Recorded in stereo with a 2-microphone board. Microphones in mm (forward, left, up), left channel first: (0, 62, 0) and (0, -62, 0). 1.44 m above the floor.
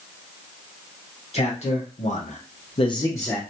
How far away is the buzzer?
No buzzer in this recording.